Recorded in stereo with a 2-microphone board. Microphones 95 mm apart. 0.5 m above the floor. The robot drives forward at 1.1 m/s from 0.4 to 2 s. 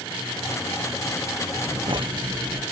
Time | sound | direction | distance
1.7 | breathing | 55° right (ahead or behind) | ?